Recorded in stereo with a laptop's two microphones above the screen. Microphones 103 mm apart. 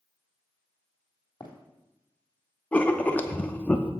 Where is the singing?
No singing in this recording.